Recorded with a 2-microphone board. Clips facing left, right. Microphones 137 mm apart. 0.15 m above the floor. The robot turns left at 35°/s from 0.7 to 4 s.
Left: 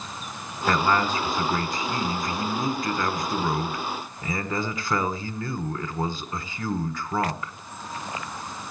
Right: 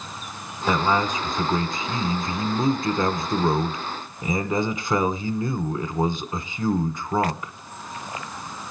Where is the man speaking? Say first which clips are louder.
Right 1 dB; 10° right (ahead or behind), 1.2 m; by 7.5 s 20° right (ahead or behind), 1.2 m.